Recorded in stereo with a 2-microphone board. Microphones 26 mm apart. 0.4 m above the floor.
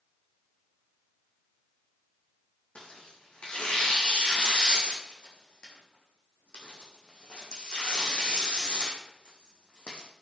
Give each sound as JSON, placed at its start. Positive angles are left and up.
{"t": 2.8, "sound": "tearing paper", "side_deg": 45, "distance_m": 3.5}